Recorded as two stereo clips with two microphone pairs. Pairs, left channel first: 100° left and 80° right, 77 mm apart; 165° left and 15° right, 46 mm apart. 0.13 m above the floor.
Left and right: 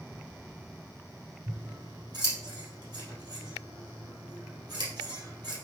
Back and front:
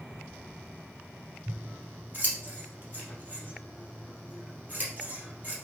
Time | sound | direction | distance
1.5 | scissors | 70° right | 3 m